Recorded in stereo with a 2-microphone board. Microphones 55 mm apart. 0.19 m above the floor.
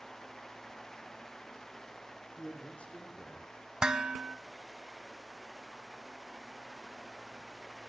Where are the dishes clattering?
15° right (ahead or behind), 0.9 m.